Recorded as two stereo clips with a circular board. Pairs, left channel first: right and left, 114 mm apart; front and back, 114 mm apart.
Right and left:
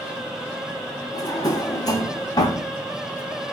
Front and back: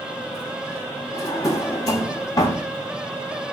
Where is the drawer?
50° right, 0.7 m.